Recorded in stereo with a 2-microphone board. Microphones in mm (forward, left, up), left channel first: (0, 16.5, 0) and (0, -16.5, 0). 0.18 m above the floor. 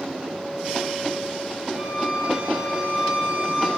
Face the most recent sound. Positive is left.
turn(degrees=-40)  # may be behind; listen again after turning